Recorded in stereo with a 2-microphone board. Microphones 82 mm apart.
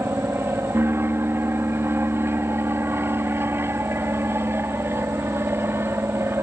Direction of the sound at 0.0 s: 30° right (ahead or behind).